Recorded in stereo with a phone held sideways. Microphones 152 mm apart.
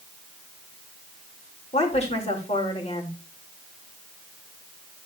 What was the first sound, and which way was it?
A woman speaking, 45° left (ahead or behind).